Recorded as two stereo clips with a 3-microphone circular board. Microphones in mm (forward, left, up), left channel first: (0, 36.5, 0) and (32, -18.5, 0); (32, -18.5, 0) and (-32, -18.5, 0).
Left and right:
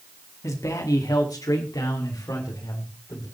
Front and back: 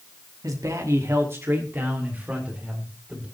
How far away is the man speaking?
About 2.5 m.